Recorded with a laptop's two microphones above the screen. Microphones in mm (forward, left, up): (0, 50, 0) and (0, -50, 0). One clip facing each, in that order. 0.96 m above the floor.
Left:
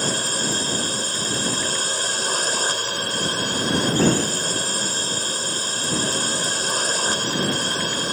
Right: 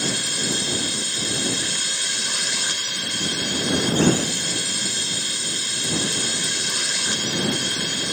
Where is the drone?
40° left (ahead or behind).